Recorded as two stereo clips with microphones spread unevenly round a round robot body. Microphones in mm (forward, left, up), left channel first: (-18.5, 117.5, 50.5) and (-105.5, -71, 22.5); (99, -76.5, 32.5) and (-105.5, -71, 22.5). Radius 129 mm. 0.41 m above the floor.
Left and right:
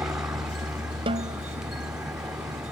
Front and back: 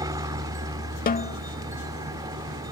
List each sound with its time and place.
0.0 s a helicopter: 170° right
1.1 s a snare drum: 50° right